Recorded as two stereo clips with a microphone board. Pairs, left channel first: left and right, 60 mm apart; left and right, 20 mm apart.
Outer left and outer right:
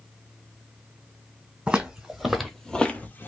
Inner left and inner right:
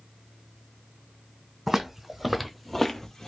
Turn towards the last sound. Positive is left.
turn(degrees=35)  # may be behind; listen again after turning